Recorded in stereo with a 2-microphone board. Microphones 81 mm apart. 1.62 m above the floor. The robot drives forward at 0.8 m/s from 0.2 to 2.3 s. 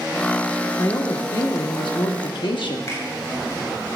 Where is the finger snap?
45° left (ahead or behind), 3.5 m.